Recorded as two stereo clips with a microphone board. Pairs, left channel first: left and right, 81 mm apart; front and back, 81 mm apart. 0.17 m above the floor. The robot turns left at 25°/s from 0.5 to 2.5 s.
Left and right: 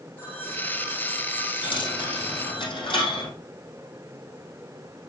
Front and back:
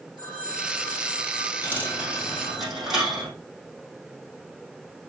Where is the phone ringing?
155° left, 4.5 m; by 2.6 s 105° left, 4.5 m.